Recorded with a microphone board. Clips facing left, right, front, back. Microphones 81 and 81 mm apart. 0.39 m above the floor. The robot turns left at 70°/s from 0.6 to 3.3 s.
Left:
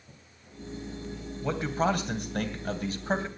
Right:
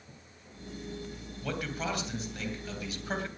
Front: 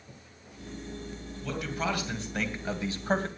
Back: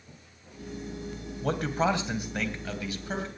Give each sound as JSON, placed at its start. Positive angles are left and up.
{"t": 1.4, "sound": "a man speaking", "azimuth_deg": 160, "distance_m": 2.5}